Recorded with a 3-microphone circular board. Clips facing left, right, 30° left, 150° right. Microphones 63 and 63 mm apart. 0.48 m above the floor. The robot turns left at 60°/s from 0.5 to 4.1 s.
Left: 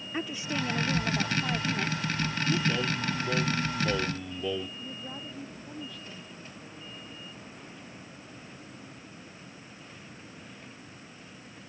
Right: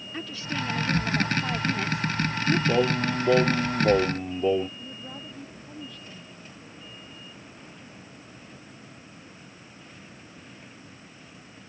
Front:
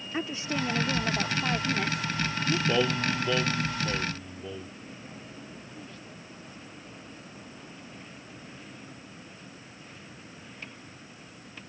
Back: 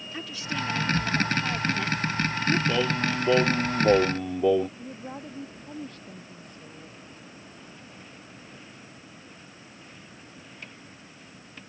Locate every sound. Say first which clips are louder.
0.1 s a woman speaking: even, front 2 dB; 45° left; by 2.6 s 80° right
2.7 s singing: right 7 dB, back 1 dB; 55° right; by 4.7 s 140° right
4.8 s a woman speaking: even, back 6 dB; straight behind